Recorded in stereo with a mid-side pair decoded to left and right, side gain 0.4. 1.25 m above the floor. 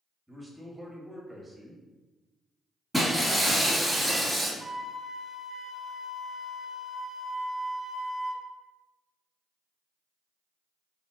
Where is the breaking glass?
Straight ahead, 1.3 m.